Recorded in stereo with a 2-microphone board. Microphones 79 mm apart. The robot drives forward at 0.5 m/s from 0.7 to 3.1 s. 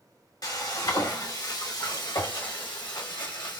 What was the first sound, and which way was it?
Frying, 50° left (ahead or behind).